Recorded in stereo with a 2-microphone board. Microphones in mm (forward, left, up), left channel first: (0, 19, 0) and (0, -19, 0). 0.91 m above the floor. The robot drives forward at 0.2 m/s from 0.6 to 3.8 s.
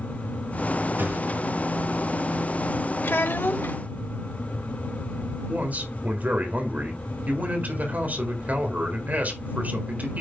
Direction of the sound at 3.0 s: 70° left (ahead or behind).